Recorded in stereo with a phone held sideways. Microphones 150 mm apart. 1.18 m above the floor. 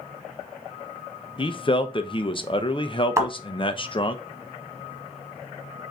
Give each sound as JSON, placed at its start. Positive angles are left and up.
{"t": 1.4, "sound": "a man speaking", "side_deg": 35, "distance_m": 0.6}
{"t": 3.2, "sound": "a thud", "side_deg": -20, "distance_m": 1.4}